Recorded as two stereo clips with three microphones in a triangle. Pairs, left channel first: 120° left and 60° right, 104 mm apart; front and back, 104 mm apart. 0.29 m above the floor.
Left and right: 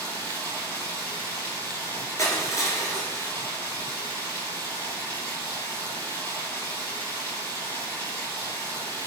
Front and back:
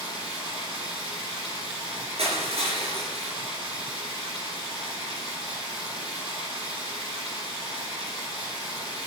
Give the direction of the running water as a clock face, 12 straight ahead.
6 o'clock.